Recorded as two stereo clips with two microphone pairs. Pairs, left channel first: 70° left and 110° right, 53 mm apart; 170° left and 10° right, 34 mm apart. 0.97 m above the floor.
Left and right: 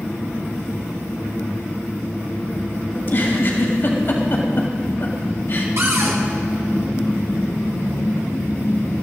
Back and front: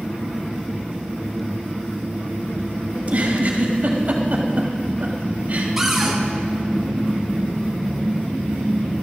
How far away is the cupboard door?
About 1.7 m.